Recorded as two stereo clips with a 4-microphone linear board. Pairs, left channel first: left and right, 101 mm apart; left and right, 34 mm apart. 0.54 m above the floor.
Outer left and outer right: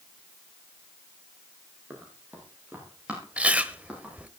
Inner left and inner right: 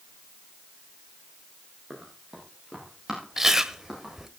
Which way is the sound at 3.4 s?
15° right (ahead or behind).